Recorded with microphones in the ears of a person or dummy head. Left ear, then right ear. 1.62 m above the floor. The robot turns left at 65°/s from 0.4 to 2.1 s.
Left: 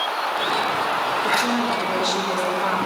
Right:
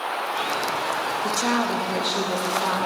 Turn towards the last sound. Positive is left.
turn(degrees=-175)